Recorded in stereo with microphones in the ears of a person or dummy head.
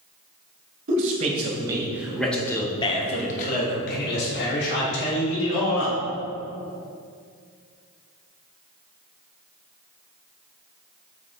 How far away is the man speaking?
About 1.8 m.